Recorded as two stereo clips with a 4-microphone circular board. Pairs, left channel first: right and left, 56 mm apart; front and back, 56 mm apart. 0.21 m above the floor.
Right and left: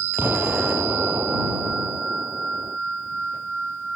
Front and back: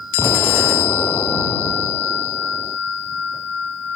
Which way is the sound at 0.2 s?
35° left.